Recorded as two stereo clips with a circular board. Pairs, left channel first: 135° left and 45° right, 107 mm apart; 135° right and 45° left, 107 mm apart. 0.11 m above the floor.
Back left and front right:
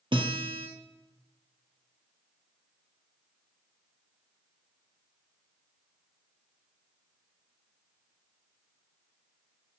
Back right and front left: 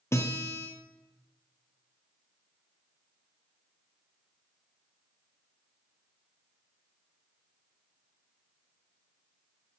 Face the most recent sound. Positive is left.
turn(degrees=-75)